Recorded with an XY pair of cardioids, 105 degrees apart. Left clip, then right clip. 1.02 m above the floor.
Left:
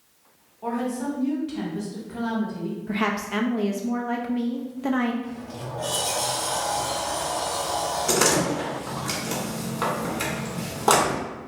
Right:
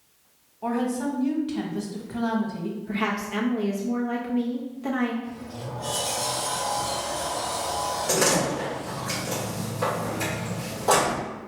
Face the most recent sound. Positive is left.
turn(degrees=65)